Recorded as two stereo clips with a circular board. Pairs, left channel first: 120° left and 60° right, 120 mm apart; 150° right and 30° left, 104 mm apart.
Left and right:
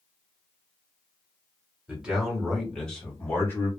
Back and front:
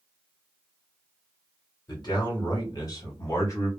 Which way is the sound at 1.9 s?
135° right.